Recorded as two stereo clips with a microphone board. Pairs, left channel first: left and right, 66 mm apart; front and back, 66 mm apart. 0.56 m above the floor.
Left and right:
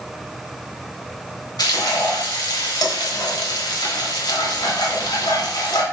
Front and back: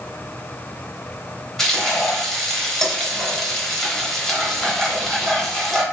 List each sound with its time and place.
1.6 s frying: 85° left, 1.0 m